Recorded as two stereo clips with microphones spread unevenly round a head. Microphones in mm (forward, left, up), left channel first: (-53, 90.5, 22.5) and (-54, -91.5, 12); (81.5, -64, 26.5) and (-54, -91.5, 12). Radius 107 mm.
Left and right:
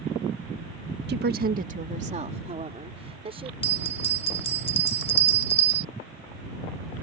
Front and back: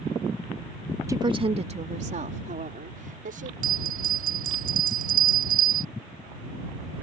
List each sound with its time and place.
1.1 s a woman speaking: 105° right; by 3.5 s 150° right
3.6 s a bell: 150° left